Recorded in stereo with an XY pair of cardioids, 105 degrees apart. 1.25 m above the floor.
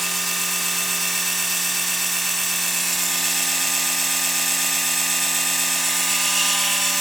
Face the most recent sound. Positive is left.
turn(degrees=-10)